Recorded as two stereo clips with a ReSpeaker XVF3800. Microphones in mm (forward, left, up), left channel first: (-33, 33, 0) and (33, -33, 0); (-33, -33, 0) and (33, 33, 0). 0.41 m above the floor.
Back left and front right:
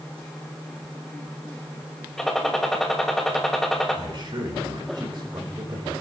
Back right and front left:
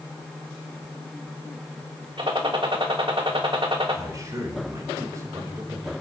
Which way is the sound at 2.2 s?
50° left.